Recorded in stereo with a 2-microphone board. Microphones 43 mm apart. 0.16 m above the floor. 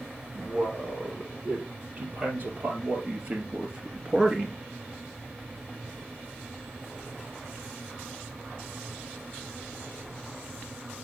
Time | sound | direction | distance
0.3 | a man speaking | 40° right (ahead or behind) | 5 m